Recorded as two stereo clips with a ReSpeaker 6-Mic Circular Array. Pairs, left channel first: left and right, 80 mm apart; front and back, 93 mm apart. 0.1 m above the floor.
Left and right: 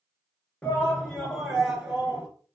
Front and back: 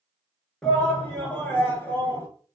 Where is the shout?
65° left, 1.3 m; by 2.3 s 40° right, 1.4 m.